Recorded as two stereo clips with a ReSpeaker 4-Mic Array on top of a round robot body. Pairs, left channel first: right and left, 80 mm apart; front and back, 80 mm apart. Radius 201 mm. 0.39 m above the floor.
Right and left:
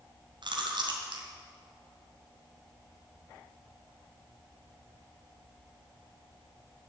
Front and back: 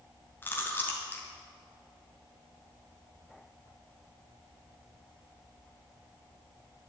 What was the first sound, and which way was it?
Chewing, 65° left.